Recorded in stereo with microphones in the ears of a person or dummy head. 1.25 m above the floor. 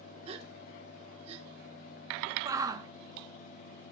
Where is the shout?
15° right (ahead or behind), 0.7 m.